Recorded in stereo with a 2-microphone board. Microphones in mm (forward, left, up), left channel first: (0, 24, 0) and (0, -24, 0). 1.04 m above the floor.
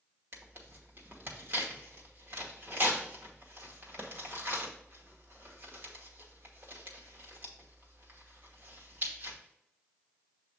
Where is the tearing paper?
50° right (ahead or behind), 1.1 m.